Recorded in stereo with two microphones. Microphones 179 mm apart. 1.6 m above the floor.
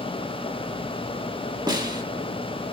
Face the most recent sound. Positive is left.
turn(degrees=-25)  # may be behind; listen again after turning